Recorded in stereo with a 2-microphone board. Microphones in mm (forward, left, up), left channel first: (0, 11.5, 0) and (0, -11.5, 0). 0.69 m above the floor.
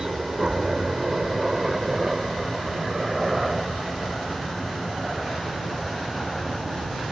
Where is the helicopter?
30° right (ahead or behind); by 7.1 s 10° left (ahead or behind).